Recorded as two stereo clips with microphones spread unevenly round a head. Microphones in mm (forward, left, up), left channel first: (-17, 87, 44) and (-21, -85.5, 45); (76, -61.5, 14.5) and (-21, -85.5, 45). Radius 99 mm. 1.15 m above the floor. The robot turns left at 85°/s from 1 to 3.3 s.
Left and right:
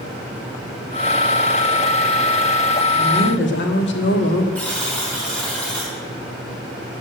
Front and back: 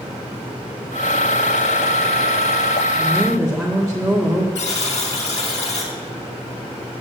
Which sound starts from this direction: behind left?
A woman speaking, at 3.0 s.